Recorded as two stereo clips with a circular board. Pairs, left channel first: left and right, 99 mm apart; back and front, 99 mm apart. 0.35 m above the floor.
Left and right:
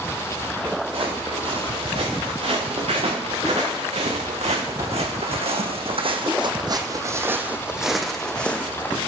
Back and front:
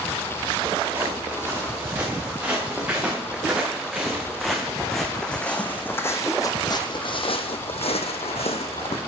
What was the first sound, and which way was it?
Footsteps, 70° right.